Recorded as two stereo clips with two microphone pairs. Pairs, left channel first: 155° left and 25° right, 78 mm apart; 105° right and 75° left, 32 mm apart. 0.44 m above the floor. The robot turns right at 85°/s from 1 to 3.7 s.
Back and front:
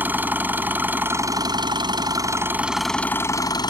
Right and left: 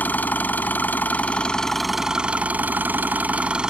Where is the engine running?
90° right; by 3.7 s 140° left.